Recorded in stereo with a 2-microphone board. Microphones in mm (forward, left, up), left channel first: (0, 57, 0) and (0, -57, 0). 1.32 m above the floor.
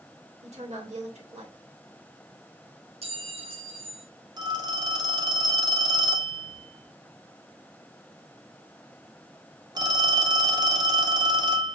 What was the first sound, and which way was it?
A woman speaking, 75° right (ahead or behind).